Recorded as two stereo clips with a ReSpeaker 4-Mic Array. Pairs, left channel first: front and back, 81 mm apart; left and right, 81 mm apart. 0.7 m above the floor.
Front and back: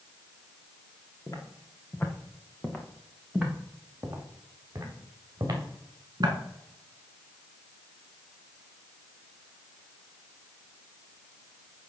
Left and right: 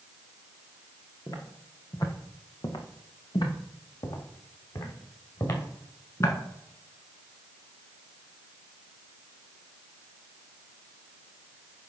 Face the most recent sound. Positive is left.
turn(degrees=140)